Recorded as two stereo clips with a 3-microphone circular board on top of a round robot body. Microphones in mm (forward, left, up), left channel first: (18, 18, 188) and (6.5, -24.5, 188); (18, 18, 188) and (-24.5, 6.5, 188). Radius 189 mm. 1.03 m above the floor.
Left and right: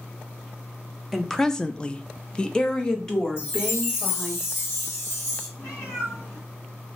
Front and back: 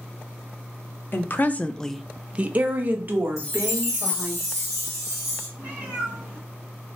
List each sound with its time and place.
1.1 s a woman speaking: 10° right, 0.6 m; by 4.4 s 150° left, 1.4 m
3.4 s a chime: 110° left, 1.8 m
5.6 s a cat meowing: 135° left, 2 m